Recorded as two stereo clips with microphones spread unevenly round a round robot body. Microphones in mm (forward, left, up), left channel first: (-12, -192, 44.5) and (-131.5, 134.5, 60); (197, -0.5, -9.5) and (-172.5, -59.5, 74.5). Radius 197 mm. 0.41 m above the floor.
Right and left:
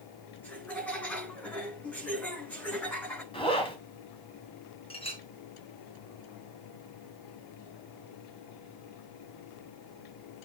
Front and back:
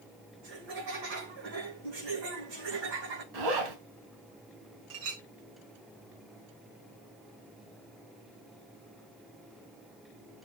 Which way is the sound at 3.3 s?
145° right.